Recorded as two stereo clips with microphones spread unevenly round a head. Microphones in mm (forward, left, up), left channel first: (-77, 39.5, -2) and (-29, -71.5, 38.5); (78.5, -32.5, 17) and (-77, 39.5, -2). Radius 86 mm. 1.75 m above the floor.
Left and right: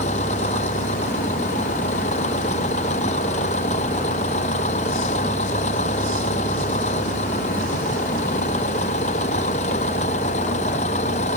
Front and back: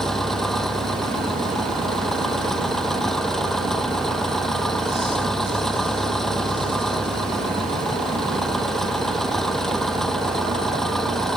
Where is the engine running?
65° left.